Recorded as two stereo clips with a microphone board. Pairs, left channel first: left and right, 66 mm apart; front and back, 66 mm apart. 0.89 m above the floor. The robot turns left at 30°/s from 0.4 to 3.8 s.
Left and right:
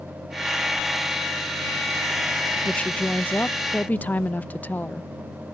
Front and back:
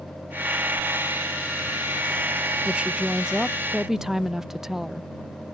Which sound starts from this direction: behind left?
A woman speaking, at 2.6 s.